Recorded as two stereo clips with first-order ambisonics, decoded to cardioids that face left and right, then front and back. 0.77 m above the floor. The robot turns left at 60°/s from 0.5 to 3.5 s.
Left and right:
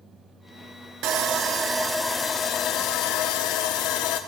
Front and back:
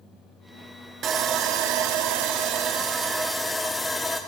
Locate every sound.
1.0 s sawing: 125° right, 1.1 m; by 4.2 s 85° left, 1.1 m